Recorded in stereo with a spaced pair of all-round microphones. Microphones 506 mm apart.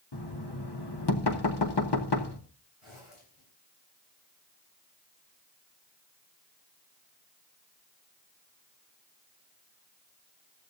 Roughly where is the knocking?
Left.